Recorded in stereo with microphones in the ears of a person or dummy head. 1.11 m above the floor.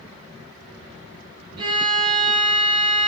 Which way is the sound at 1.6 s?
25° right (ahead or behind).